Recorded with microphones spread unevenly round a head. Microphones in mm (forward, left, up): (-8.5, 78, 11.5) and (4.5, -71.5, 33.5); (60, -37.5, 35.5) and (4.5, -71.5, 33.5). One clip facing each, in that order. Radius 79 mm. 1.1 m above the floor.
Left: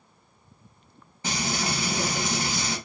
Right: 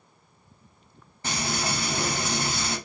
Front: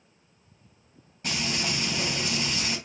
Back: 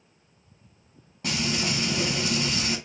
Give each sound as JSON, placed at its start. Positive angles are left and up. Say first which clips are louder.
{"t": 1.2, "sound": "frying", "louder": "left 1 dB, back 2 dB", "azimuth_deg": 175, "distance_m": 3.0}